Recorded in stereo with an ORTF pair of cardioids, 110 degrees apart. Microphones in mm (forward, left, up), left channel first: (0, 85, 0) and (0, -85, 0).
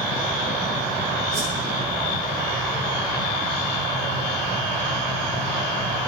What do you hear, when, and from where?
1.3 s a whoosh: 40° right, 9 m